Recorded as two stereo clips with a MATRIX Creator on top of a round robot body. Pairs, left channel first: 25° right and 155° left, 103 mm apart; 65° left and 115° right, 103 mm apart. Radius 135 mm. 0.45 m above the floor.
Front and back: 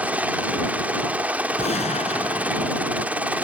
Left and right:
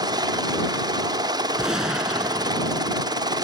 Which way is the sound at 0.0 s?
130° right.